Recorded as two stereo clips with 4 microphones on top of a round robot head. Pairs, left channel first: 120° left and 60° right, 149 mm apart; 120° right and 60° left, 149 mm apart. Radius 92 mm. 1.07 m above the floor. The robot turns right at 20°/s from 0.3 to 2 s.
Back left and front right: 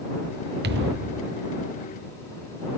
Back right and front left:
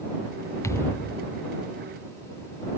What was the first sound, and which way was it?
A thud, 50° right.